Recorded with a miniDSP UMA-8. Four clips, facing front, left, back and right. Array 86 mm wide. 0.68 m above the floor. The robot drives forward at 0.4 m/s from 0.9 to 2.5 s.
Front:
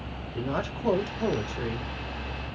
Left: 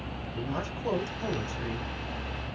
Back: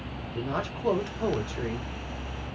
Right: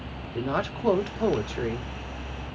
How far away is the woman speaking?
About 1.3 m.